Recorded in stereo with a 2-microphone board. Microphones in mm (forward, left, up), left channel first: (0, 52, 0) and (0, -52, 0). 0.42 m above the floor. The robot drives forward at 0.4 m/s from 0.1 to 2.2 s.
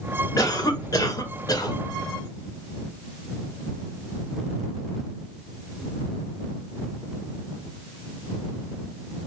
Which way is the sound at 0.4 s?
35° left (ahead or behind).